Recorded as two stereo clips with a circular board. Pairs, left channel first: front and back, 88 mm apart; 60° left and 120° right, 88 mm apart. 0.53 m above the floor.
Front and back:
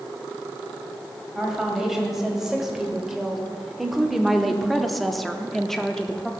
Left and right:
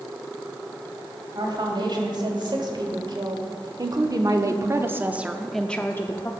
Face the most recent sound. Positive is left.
turn(degrees=80)